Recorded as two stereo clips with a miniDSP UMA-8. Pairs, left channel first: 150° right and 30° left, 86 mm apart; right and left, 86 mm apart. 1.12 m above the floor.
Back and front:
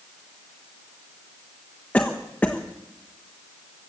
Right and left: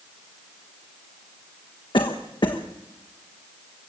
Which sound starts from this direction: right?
A cough, at 1.9 s.